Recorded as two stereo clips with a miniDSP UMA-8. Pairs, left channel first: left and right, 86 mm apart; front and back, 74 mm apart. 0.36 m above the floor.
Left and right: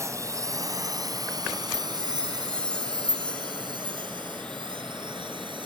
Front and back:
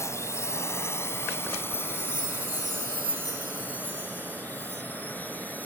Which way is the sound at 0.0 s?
40° right.